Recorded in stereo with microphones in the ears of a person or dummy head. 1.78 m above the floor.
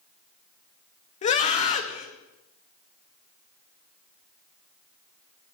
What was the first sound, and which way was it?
A scream, 40° left (ahead or behind).